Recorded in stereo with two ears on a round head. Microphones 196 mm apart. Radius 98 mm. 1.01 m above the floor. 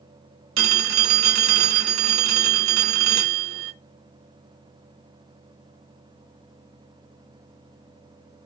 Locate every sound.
0.6 s a phone ringing: 60° right (ahead or behind), 0.6 m